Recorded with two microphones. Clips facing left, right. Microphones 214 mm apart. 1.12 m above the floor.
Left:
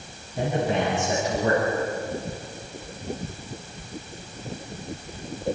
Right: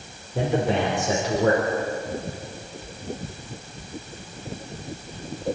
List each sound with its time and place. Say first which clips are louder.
0.3 s a man speaking: right 2 dB; 80° right, 5 m